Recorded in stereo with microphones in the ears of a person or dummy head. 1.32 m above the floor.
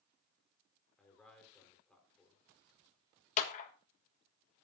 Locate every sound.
1.0 s a man speaking: centre (ahead or behind), 4 m
3.4 s a clap: 40° left (ahead or behind), 1.4 m